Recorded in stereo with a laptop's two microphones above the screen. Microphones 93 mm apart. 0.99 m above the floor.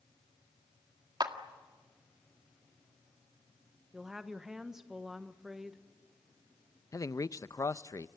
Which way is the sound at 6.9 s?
40° left (ahead or behind).